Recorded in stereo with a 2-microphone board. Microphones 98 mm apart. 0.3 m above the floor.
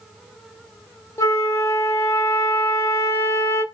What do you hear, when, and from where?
1.2 s a flute: 30° left (ahead or behind), 0.6 m